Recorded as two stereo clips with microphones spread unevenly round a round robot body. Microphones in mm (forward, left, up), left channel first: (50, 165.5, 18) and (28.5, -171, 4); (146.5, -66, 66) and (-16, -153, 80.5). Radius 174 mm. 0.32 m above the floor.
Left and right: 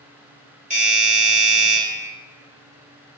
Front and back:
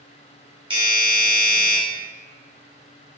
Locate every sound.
0.7 s a doorbell: 120° right, 1.5 m